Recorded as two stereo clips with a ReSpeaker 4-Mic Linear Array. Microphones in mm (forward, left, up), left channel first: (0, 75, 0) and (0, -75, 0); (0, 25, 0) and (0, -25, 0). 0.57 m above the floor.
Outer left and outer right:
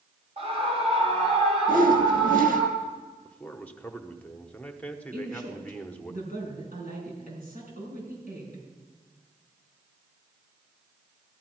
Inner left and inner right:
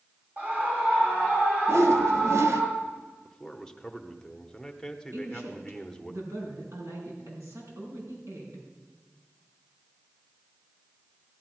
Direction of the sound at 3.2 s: 10° left (ahead or behind).